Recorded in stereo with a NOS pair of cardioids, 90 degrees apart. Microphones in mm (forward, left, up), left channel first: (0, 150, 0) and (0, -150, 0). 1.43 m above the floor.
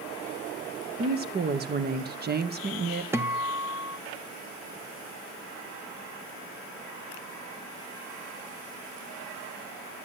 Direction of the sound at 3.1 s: 10° right.